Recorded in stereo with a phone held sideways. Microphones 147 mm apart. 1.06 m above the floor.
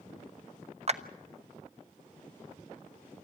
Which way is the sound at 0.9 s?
45° right (ahead or behind).